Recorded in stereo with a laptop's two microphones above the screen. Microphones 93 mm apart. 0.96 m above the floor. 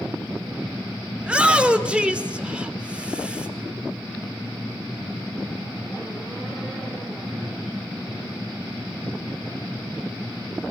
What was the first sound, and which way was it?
A shout, 10° right (ahead or behind).